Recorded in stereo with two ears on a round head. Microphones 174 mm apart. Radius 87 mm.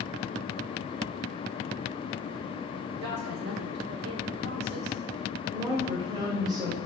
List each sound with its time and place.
3.0 s a woman speaking: 55° right (ahead or behind), 1.8 m
5.5 s a woman speaking: 20° right (ahead or behind), 4 m